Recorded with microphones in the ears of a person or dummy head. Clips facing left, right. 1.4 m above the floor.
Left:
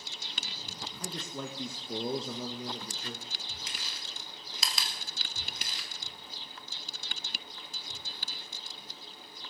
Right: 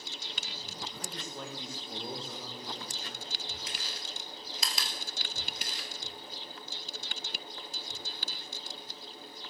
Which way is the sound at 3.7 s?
70° left (ahead or behind).